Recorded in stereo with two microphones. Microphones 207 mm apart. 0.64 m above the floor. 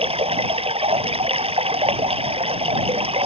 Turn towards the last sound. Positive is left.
turn(degrees=-30)  # may be behind; listen again after turning